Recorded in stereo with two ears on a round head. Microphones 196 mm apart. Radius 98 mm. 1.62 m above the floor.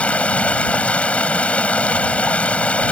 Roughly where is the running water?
Centre.